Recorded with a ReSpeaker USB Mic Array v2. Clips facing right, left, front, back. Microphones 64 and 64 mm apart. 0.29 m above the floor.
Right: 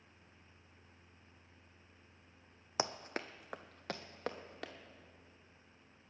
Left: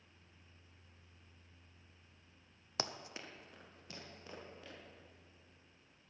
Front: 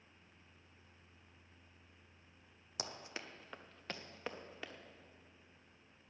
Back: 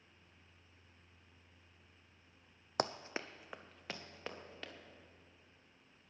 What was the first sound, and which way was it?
Running footsteps, 160° right.